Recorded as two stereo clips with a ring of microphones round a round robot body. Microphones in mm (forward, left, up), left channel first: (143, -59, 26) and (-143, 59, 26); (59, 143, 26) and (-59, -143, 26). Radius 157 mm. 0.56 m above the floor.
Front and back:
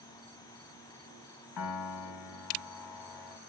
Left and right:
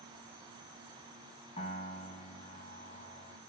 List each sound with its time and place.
1.6 s a piano: 5° right, 0.9 m